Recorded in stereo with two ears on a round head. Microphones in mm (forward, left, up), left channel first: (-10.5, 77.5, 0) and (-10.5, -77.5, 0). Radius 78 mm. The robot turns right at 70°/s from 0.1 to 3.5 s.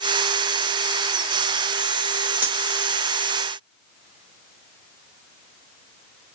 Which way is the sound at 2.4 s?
10° right (ahead or behind).